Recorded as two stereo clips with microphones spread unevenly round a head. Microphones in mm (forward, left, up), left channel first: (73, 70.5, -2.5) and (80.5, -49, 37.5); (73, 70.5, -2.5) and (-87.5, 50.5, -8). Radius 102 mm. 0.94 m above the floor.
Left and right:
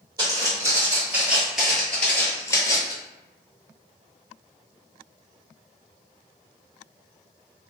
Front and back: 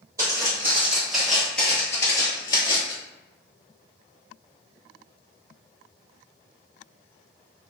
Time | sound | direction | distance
0.2 | footsteps | 105° right | 1.3 m